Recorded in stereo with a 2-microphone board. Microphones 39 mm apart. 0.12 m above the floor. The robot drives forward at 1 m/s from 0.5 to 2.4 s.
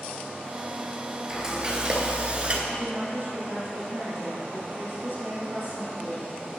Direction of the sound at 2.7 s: 60° right (ahead or behind).